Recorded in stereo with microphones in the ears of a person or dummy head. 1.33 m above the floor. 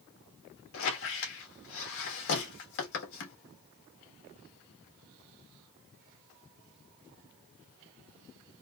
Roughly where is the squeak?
Left.